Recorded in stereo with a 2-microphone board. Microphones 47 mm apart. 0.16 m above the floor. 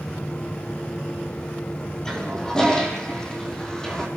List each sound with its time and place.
2.0 s a toilet flushing: 15° left (ahead or behind), 5.5 m